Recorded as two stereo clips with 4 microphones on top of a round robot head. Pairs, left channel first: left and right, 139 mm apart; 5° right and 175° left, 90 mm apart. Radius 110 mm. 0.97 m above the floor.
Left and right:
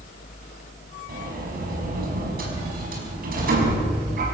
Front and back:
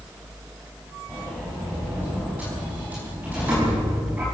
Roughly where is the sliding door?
Right.